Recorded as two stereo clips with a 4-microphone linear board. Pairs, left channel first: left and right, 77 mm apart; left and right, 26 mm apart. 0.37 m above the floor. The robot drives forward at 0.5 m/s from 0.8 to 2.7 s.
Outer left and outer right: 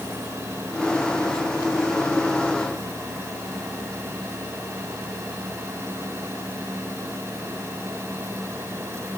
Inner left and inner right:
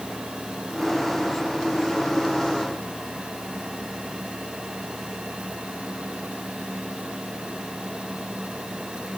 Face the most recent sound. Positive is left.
No sound to turn to.